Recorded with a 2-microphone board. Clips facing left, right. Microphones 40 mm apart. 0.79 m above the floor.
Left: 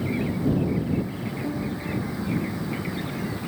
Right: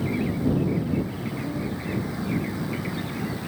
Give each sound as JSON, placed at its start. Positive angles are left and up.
{"t": 1.4, "sound": "a piano", "side_deg": 10}